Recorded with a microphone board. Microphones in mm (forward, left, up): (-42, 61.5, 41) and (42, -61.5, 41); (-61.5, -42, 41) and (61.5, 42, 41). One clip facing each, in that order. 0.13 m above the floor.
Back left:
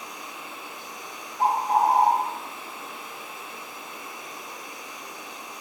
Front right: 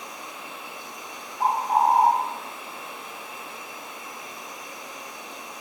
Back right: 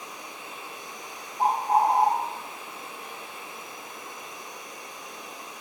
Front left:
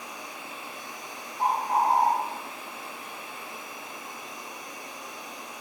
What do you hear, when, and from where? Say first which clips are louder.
0.0 s an insect: front right 1 dB, front left 1 dB; straight ahead, 5 m
1.4 s a bird: even, back right 3 dB; 150° left, 2 m